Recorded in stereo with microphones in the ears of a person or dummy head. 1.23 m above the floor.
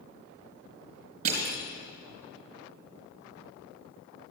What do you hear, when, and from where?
1.2 s crushing: 45° right (ahead or behind), 3.5 m